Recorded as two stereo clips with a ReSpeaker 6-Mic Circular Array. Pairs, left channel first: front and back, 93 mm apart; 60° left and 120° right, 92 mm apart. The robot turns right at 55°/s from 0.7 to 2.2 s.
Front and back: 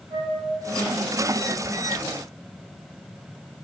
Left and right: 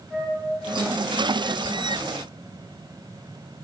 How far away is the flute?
About 2.5 m.